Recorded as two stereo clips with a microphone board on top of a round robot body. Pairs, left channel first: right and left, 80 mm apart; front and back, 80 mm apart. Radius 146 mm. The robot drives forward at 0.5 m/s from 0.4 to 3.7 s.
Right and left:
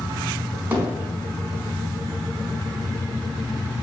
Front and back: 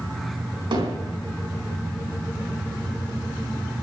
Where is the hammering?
160° left, 4.5 m.